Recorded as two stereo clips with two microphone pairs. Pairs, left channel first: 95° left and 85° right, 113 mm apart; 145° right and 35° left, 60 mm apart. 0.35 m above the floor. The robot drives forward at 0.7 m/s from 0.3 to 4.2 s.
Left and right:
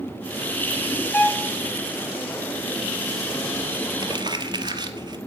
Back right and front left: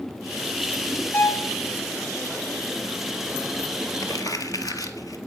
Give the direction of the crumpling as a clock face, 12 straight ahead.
4 o'clock.